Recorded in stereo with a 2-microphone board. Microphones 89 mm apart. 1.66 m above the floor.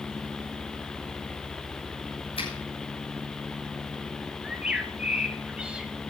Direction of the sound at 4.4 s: 10° right (ahead or behind).